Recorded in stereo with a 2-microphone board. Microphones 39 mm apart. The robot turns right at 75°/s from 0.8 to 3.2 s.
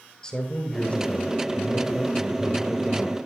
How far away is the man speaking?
About 4 m.